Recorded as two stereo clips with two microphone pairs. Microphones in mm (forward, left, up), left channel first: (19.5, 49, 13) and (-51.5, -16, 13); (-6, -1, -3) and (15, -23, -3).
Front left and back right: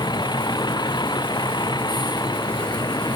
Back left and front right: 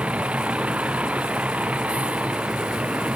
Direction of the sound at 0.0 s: 5° right.